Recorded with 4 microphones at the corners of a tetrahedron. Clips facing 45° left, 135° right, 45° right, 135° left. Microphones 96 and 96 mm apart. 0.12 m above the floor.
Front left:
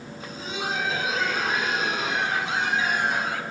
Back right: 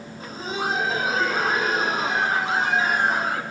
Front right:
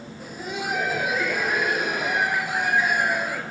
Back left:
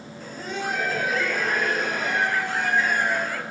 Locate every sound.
0.2 s laughter: 115° right, 1.4 m